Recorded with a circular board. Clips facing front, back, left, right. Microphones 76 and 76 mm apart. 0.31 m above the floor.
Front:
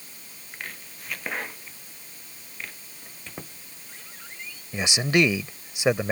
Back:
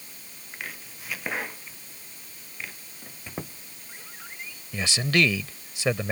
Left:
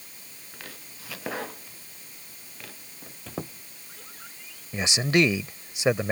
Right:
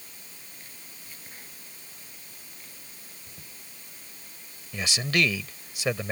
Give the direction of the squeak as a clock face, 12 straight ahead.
9 o'clock.